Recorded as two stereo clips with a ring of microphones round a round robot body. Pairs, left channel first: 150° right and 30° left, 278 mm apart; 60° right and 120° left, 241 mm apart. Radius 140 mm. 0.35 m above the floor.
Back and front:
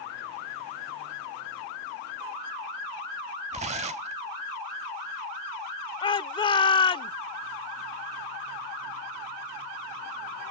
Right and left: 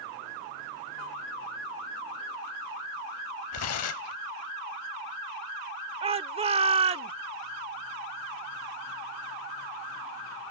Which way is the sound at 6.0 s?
155° left.